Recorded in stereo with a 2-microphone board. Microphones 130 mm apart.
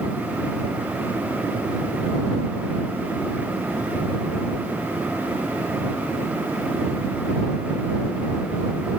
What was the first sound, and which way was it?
Only background noise.